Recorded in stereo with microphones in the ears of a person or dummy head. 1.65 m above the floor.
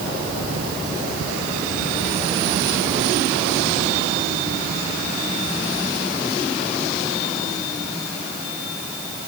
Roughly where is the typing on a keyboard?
I don't hear typing on a keyboard.